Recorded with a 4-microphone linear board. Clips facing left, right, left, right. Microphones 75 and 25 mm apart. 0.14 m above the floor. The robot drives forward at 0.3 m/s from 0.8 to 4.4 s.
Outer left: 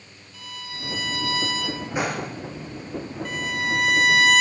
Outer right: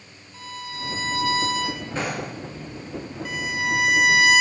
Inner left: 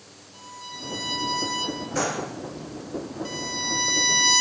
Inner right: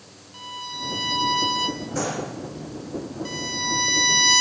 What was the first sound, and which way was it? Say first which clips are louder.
A violin: outer right 4 dB, inner right 6 dB; 35° right (ahead or behind).